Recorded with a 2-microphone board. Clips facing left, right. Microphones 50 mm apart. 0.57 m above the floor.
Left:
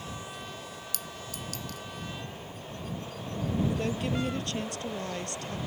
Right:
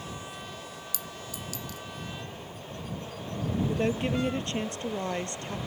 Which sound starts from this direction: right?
A woman speaking, at 3.7 s.